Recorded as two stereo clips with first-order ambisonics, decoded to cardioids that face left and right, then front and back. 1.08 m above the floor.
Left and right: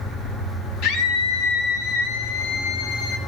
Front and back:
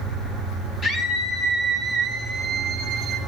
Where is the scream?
65° left, 3 m; by 3.2 s 120° left, 2.5 m.